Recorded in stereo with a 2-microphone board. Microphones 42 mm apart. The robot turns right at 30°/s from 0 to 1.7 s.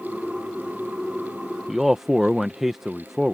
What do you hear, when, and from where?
1.7 s a man speaking: 10° right (ahead or behind)